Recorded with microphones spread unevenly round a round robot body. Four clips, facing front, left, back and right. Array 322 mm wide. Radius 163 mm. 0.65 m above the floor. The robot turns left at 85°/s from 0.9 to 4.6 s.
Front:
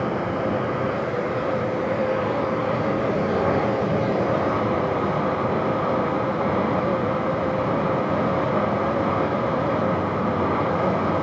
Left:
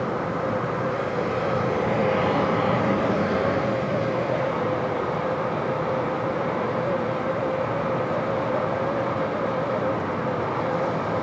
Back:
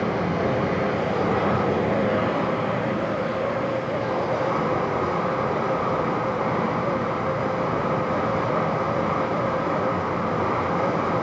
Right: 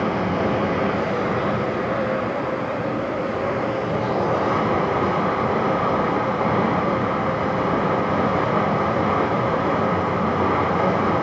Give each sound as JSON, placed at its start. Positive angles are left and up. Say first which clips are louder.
{"t": 0.0, "sound": "running water", "louder": "right 4 dB, even", "azimuth_deg": -135, "distance_m": 5.0}